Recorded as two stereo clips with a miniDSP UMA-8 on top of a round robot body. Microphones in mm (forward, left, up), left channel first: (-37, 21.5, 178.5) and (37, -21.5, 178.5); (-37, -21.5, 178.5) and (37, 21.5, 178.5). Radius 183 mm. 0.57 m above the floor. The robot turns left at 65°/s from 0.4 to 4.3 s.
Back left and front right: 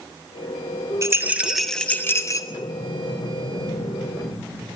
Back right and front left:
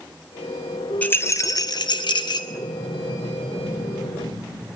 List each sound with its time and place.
1.0 s a rattle: 80° right, 2 m; by 2.4 s 170° right, 2 m
2.5 s a sliding door: 145° right, 7.5 m; by 4.7 s 100° left, 7.5 m